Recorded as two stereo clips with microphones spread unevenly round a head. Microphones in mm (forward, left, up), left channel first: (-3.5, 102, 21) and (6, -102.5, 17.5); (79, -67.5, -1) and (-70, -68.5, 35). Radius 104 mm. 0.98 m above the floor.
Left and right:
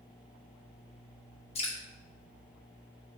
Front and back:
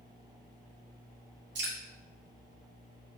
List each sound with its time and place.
1.6 s dripping: 155° left, 1.0 m